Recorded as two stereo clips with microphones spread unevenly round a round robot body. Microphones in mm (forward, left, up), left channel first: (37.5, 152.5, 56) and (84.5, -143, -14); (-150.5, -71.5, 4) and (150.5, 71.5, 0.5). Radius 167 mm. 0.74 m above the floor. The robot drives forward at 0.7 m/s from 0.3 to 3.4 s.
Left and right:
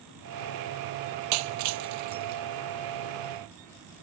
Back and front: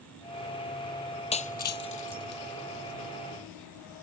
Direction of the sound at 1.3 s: 85° right.